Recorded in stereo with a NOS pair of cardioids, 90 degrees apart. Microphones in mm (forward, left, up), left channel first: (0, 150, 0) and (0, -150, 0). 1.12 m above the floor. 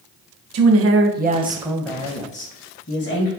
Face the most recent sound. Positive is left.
turn(degrees=40)